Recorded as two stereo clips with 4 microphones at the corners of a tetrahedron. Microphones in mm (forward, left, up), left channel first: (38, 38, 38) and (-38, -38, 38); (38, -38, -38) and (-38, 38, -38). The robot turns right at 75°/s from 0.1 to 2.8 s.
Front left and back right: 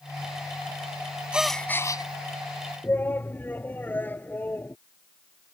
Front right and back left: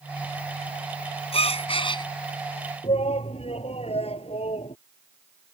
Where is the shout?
25° right.